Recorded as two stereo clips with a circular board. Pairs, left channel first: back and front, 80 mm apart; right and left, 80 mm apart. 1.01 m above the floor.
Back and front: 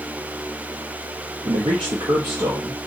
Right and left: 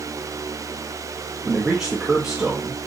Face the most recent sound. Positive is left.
turn(degrees=10)